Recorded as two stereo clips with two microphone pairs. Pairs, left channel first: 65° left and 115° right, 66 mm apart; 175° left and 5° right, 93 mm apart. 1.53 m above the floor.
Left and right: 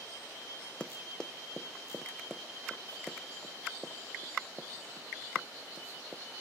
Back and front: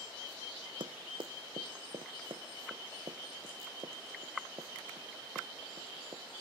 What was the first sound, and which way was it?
Running footsteps, 5° right.